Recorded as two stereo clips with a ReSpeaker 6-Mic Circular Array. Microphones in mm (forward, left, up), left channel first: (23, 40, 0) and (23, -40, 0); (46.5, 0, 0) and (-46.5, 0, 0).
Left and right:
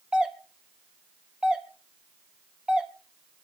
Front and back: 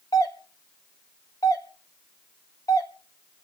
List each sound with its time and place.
0.1 s a doorbell: 15° right, 1.5 m